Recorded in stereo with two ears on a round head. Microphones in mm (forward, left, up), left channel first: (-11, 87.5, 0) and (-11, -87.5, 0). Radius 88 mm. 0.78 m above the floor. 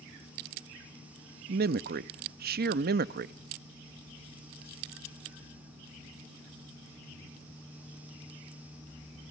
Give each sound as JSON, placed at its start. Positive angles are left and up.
{"t": 1.5, "sound": "a man speaking", "side_deg": -50, "distance_m": 0.6}